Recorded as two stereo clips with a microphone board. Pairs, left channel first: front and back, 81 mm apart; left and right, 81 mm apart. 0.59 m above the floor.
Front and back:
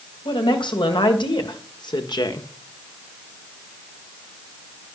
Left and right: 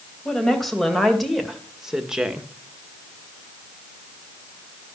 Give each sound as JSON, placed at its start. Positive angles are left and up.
{"t": 0.2, "sound": "a woman speaking", "azimuth_deg": 5, "distance_m": 2.5}